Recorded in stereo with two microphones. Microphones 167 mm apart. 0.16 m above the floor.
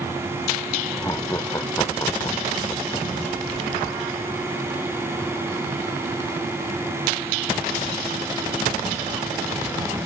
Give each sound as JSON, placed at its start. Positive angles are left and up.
{"t": 0.9, "sound": "laughter", "side_deg": 20}